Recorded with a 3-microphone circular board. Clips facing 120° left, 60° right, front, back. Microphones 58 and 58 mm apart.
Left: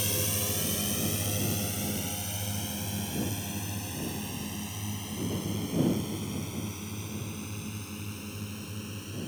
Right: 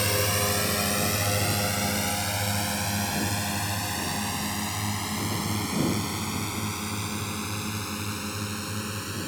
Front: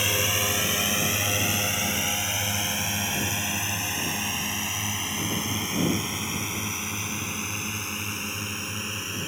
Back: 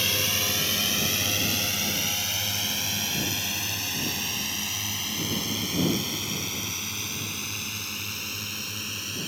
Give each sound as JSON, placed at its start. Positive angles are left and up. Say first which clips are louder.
{"t": 0.0, "sound": "a drone", "louder": "right 8 dB, front 2 dB", "azimuth_deg": -70}